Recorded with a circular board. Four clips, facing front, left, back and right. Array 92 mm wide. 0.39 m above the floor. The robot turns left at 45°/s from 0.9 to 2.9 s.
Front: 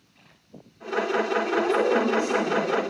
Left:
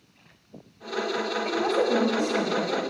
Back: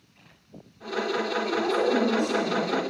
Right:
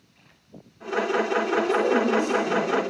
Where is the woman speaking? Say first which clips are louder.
Right 2 dB, even; 90° left, 2.5 m; by 2.9 s 25° left, 2.5 m.